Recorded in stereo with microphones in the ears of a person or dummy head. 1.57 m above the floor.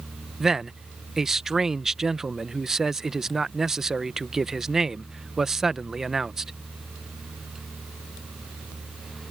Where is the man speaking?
Centre (ahead or behind).